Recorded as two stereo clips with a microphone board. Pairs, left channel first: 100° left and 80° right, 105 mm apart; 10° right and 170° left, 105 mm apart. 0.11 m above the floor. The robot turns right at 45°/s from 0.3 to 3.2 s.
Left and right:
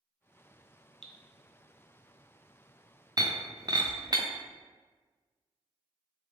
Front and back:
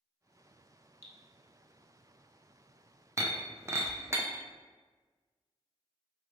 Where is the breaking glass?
125° right, 0.7 m.